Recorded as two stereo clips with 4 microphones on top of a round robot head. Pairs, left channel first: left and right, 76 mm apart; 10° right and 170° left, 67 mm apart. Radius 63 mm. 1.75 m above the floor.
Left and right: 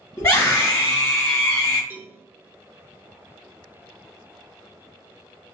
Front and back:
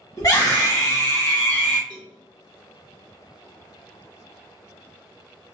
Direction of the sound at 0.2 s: 20° left.